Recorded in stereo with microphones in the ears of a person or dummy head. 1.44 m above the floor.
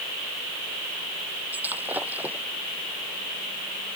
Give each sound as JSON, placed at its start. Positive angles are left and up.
{"t": 1.5, "sound": "breaking glass", "side_deg": -10}